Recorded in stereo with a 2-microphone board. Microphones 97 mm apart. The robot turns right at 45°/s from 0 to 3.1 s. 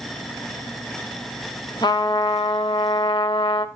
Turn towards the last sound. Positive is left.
turn(degrees=110)